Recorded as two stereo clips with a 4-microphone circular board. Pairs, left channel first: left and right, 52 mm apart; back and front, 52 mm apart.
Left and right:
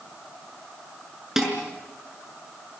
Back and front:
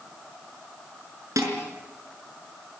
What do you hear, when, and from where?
1.4 s dishes clattering: 5° right, 6 m